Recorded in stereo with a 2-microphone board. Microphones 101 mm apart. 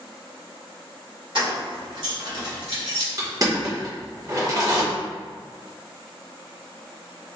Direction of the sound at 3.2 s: 40° right (ahead or behind).